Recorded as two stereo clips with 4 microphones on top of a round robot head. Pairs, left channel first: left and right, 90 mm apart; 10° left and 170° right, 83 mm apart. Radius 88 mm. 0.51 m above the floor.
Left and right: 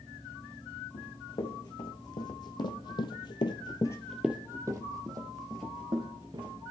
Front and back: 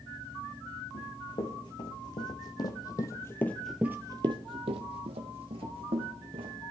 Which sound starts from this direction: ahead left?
Running footsteps, at 0.9 s.